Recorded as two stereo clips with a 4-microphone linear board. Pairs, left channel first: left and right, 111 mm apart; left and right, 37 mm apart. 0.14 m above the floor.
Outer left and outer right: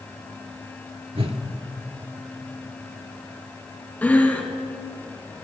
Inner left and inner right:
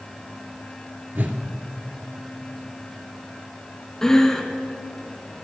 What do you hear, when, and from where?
1.1 s a whoosh: 60° right (ahead or behind), 1.6 m
4.0 s breathing: 15° left (ahead or behind), 1.8 m